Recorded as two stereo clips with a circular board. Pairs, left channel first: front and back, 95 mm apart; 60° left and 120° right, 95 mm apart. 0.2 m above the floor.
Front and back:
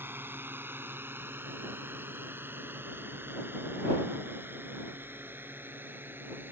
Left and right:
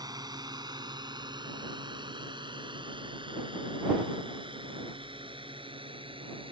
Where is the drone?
125° right; by 6.5 s 115° right.